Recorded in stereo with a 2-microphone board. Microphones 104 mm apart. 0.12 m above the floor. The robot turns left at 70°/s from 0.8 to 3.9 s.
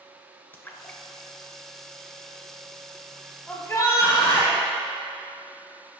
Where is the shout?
165° left, 3 m; by 4.6 s 135° left, 3 m.